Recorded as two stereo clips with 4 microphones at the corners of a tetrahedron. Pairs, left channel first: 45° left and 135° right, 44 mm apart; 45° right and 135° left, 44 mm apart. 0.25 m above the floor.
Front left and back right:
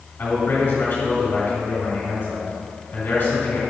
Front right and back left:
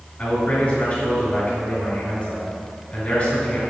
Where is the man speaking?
10° left, 2 m.